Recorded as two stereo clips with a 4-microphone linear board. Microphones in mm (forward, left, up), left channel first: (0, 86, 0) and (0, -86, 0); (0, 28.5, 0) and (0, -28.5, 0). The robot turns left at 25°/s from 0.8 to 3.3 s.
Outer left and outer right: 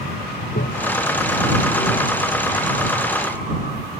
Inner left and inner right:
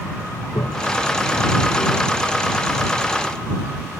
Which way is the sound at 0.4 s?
80° left.